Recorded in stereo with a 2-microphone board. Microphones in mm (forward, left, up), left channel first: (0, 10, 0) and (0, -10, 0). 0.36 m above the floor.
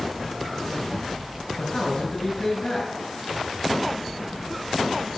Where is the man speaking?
45° left (ahead or behind), 5.5 m.